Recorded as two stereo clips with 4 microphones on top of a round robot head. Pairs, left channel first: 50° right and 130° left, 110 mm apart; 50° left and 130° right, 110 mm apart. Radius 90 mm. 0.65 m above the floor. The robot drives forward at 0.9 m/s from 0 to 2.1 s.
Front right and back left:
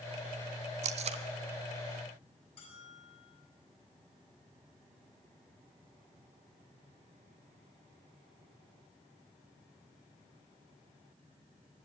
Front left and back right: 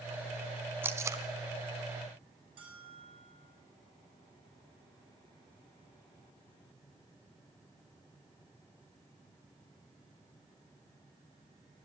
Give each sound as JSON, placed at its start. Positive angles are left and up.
{"t": 0.8, "sound": "tape being pulled", "azimuth_deg": 155, "distance_m": 0.6}
{"t": 2.6, "sound": "a bell", "azimuth_deg": -90, "distance_m": 7.0}